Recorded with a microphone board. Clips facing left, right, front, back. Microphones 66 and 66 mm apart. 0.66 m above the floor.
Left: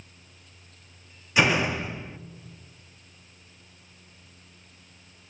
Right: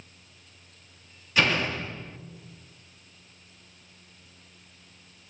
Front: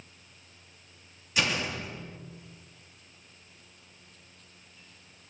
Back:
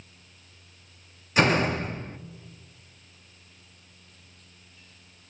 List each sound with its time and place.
1.4 s a door slam: 160° left, 0.6 m